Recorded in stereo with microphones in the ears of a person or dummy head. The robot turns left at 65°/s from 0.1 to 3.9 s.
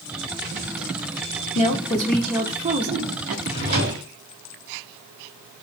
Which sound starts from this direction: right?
A drawer, at 3.5 s.